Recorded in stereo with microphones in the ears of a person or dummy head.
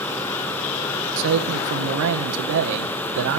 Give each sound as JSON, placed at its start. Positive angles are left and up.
{"t": 1.2, "sound": "a man speaking", "side_deg": -70, "distance_m": 1.2}